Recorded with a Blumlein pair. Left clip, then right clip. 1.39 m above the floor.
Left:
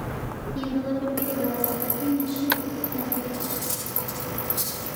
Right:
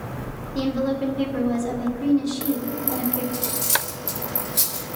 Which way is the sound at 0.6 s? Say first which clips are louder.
Right 5 dB; 60° right.